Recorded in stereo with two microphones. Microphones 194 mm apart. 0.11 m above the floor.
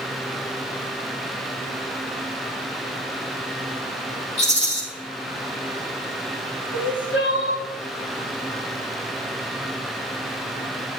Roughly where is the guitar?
No guitar in this recording.